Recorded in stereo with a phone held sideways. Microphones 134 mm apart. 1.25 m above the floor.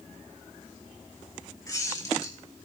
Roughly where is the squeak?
Left.